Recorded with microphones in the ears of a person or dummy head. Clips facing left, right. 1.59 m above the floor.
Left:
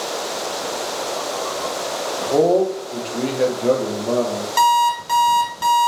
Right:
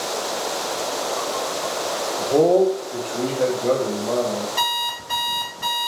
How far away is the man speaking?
About 1.2 m.